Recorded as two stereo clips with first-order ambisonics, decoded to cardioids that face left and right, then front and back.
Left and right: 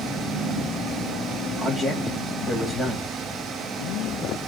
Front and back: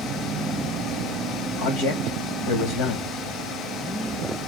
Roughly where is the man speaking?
Ahead.